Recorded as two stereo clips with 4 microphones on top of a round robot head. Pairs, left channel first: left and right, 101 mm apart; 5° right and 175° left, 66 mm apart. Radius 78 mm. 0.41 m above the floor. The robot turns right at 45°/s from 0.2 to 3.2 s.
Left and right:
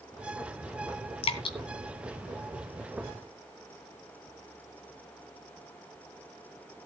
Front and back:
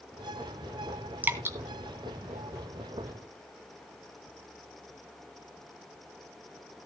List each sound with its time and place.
1.2 s dripping: 115° left, 2 m; by 1.6 s 130° left, 2 m